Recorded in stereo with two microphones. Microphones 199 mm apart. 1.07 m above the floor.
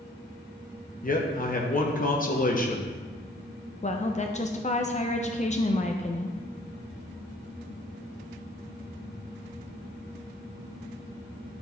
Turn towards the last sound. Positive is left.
turn(degrees=35)  # may be behind; listen again after turning